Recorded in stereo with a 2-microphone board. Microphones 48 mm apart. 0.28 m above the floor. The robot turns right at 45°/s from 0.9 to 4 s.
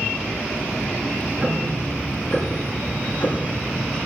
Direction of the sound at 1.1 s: 45° right.